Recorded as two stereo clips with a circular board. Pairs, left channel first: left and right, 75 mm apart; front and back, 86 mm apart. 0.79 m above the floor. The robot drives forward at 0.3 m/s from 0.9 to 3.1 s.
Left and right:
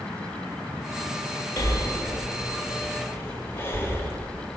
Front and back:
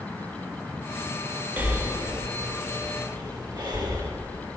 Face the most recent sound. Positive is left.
turn(degrees=150)